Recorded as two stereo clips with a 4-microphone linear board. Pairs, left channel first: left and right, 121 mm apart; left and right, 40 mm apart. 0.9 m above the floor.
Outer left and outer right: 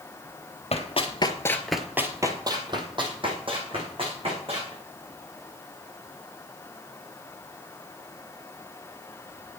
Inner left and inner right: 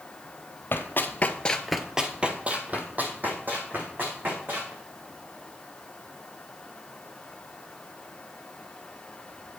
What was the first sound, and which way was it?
Running footsteps, 60° left (ahead or behind).